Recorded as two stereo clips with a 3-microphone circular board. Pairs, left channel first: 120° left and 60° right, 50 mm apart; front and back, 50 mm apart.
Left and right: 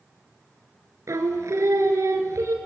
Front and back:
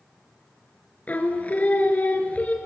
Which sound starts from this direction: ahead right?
Singing, at 1.1 s.